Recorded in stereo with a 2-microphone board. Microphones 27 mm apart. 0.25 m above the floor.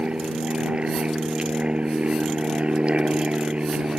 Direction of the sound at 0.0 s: 45° right (ahead or behind).